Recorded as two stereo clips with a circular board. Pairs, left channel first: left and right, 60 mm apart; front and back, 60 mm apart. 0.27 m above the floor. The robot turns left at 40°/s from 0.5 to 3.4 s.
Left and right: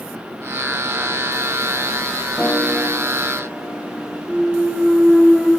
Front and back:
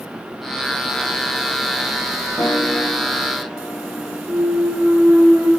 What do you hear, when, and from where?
2.4 s a piano: 10° left, 1.2 m; by 4.2 s 30° right, 1.2 m
4.3 s a clunk: 170° right, 2.5 m